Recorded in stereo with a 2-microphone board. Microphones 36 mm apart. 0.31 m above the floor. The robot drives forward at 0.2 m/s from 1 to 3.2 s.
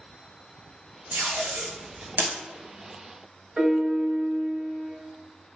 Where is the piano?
25° right (ahead or behind), 0.7 m.